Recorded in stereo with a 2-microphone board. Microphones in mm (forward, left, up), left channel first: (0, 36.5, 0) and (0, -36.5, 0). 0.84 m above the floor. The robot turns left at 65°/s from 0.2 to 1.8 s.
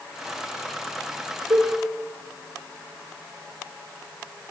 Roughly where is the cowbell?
Right.